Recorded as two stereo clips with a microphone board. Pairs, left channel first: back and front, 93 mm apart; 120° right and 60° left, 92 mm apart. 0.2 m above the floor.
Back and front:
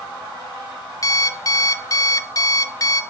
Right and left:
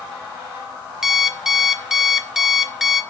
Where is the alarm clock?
145° left, 0.8 m.